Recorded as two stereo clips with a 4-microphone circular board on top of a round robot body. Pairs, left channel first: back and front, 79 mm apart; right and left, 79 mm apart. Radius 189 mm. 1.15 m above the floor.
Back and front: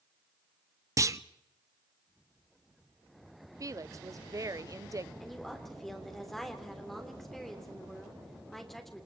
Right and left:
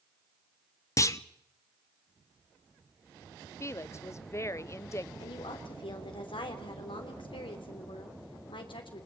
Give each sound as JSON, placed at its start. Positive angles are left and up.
{"t": 1.0, "sound": "a clunk", "azimuth_deg": -45, "distance_m": 1.1}
{"t": 3.6, "sound": "a woman speaking", "azimuth_deg": -40, "distance_m": 0.8}
{"t": 5.2, "sound": "a woman speaking", "azimuth_deg": -95, "distance_m": 3.5}